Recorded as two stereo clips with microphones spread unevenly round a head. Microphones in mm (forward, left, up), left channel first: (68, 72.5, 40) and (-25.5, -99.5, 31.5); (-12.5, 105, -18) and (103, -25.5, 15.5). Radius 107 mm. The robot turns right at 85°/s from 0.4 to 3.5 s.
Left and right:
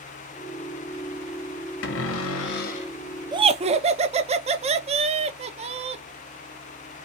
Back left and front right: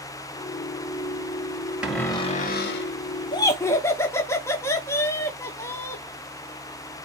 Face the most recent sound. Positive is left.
turn(degrees=-165)